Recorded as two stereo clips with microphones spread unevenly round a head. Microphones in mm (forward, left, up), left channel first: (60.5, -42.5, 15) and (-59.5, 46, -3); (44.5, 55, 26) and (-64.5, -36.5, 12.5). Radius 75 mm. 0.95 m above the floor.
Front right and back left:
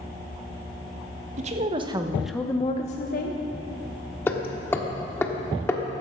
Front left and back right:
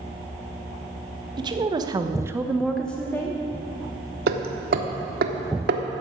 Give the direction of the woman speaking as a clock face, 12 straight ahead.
6 o'clock.